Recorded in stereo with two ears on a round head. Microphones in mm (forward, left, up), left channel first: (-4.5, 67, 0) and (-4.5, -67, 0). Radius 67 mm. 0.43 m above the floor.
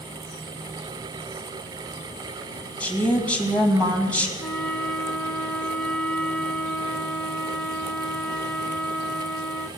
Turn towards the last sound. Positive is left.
turn(degrees=5)  # may be behind; listen again after turning